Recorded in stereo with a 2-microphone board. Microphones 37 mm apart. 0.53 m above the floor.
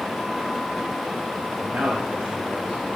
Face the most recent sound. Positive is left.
turn(degrees=-45)  # may be behind; listen again after turning